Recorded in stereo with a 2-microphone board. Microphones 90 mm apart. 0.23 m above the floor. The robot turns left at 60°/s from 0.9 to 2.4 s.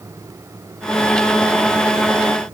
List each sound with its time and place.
Only background noise.